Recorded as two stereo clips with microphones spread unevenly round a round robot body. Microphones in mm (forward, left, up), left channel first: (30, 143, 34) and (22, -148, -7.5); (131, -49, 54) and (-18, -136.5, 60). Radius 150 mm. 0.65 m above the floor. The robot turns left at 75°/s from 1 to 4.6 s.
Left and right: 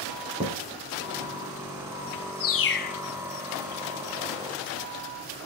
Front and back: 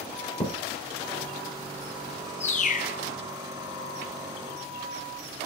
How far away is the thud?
About 3.5 m.